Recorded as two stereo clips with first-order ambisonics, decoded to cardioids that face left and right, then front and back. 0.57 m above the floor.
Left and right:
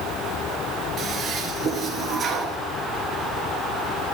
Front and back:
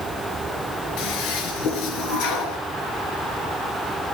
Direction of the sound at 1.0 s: 25° right.